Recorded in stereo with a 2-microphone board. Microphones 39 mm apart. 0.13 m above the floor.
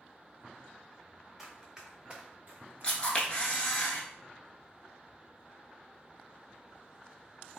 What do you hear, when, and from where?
1.4 s running footsteps: 10° right (ahead or behind), 1.0 m; by 3.8 s 70° right (ahead or behind), 0.6 m
2.8 s a camera shutter: 25° left (ahead or behind), 0.9 m